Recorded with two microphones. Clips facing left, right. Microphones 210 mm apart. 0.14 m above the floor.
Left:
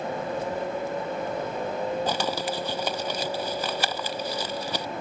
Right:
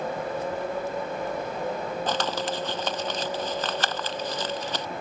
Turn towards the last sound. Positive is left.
turn(degrees=10)  # may be behind; listen again after turning